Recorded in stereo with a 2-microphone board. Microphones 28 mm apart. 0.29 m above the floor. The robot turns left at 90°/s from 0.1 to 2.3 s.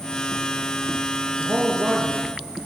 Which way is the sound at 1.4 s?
85° right.